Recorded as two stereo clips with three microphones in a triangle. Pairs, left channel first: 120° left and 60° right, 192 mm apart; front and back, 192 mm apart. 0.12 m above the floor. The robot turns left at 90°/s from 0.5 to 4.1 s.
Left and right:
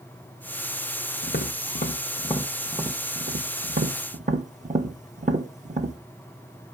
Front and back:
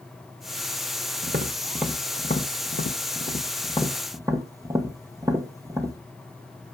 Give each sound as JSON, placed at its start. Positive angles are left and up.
{"t": 1.2, "sound": "tapping", "azimuth_deg": 150, "distance_m": 0.7}